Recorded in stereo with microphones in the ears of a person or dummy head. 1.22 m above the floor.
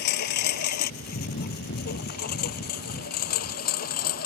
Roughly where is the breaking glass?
I don't hear breaking glass.